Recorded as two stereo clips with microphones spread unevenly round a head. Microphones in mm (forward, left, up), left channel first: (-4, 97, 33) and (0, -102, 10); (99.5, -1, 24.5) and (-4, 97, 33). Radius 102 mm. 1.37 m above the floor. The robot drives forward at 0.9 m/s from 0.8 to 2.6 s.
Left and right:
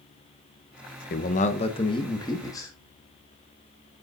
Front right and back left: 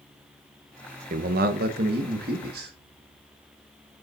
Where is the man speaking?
125° left, 0.7 m; by 2.7 s 165° left, 1.8 m.